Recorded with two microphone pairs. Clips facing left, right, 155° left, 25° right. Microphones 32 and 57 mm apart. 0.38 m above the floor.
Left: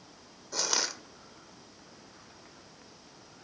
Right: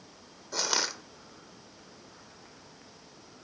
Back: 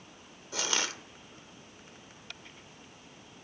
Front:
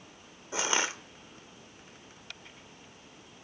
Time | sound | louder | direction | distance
0.5 | crushing | right 2 dB, front 3 dB | 15° right | 0.7 m